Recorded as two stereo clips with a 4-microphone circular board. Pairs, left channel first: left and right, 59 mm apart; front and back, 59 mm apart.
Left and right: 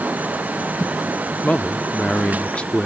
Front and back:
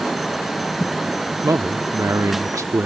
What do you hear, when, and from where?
1.4 s a man speaking: 160° left